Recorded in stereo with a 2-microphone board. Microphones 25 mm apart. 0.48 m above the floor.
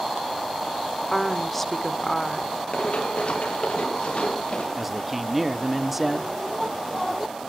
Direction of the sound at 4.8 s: 5° right (ahead or behind).